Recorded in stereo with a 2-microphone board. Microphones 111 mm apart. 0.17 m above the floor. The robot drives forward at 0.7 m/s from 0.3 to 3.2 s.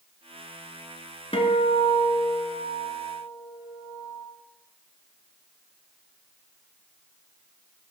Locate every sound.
1.3 s a guitar: 55° left (ahead or behind), 1.1 m; by 4.2 s 30° left (ahead or behind), 1.8 m